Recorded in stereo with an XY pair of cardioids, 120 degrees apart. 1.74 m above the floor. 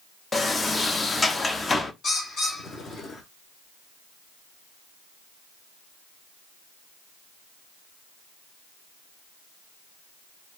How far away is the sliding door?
About 0.7 m.